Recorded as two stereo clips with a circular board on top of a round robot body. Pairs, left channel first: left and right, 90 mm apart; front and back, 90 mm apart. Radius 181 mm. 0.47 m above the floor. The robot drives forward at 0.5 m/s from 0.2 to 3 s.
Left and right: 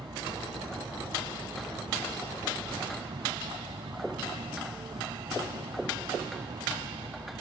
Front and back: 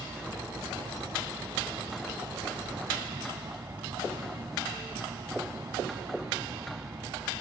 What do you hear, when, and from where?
0.0 s an aircraft: 120° right; by 7.4 s 125° right